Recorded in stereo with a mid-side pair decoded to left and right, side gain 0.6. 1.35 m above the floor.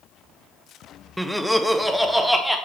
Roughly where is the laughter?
Ahead.